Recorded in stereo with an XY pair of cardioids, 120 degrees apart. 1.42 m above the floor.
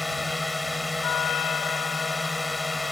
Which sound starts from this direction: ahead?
A drone, at 0.0 s.